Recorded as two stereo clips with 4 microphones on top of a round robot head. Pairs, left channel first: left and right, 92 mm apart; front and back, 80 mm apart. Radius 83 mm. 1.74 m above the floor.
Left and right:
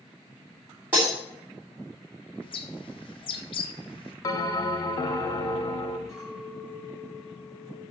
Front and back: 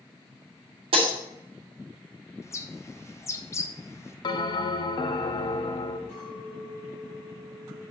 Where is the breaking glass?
170° right, 2.5 m.